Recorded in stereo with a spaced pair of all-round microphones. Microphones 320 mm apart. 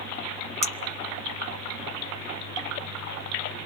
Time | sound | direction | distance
0.6 | a clink | 20° left (ahead or behind) | 0.8 m